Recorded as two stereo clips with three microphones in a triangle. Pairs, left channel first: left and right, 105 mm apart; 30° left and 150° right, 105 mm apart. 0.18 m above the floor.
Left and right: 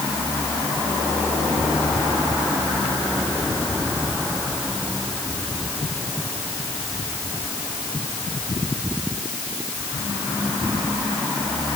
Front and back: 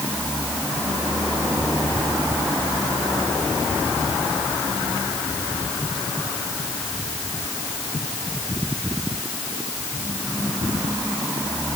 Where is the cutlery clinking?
No cutlery clinking in this recording.